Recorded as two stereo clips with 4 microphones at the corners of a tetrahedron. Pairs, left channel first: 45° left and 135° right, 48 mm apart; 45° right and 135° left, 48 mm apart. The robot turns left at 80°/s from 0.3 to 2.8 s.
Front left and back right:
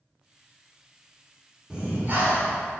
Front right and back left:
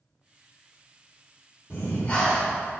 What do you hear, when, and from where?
1.7 s breathing: 65° right, 1.5 m; by 2.5 s 135° right, 1.5 m